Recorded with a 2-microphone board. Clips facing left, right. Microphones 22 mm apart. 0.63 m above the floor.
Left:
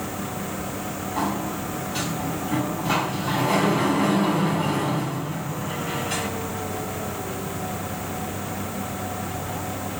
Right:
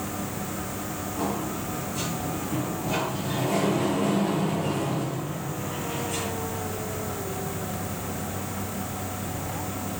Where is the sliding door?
50° left (ahead or behind), 5 m.